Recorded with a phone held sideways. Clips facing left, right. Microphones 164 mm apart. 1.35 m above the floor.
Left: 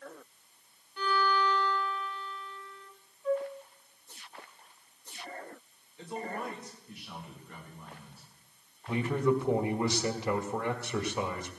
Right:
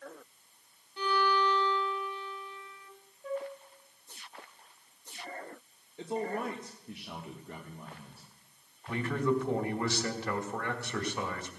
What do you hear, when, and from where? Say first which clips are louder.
1.0 s a violin: even; 20° right (ahead or behind), 1.6 m
3.2 s a flute: left 6 dB; 55° right (ahead or behind), 1.7 m
6.0 s a man speaking: right 4 dB; 65° right (ahead or behind), 1.4 m
8.9 s a man speaking: left 2 dB; 20° left (ahead or behind), 1.6 m